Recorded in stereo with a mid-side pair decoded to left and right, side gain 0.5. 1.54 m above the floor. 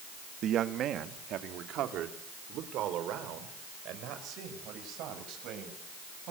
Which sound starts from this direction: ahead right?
A man speaking, at 0.4 s.